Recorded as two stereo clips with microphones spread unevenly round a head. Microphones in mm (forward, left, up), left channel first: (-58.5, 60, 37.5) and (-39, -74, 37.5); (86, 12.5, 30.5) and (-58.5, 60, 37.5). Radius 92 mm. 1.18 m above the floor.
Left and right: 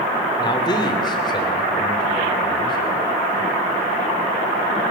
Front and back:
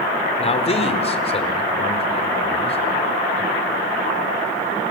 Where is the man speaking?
30° left, 3 m.